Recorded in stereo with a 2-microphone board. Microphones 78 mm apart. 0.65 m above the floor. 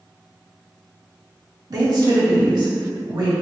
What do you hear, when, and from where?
1.7 s a woman speaking: 55° right (ahead or behind), 1.4 m; by 3.3 s 70° right (ahead or behind), 2 m